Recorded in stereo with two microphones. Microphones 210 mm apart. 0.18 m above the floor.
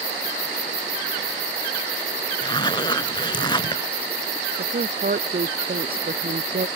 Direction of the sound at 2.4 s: 20° left (ahead or behind).